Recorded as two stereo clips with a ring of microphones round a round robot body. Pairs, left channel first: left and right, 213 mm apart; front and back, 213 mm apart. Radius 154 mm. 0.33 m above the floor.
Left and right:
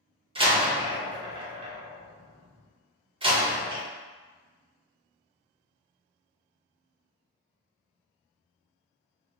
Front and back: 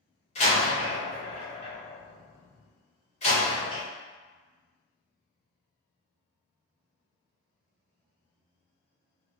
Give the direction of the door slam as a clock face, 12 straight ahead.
1 o'clock.